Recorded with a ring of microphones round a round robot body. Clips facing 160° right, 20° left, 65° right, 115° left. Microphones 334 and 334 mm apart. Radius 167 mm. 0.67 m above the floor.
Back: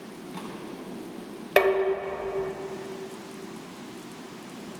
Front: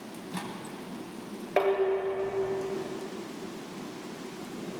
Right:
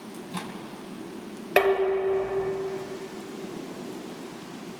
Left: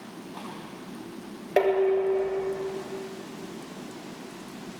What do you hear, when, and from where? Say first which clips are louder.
0.1 s a microwave: even, right 3 dB; 35° right, 4.5 m
1.6 s dishes clattering: back 3 dB, even; 130° right, 1.8 m